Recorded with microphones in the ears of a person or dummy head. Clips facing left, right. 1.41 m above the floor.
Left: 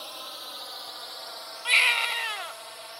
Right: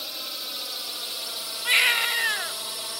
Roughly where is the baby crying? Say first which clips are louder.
Right 1 dB; centre.